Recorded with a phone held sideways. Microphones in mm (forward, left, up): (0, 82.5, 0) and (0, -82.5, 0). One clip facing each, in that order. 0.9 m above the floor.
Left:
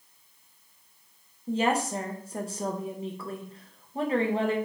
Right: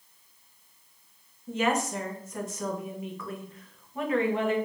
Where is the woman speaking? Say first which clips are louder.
Left 1 dB; 35° left (ahead or behind), 0.5 m.